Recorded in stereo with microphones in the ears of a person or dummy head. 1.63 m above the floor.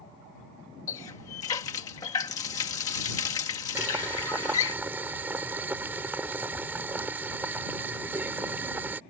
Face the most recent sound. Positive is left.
turn(degrees=-10)  # may be behind; listen again after turning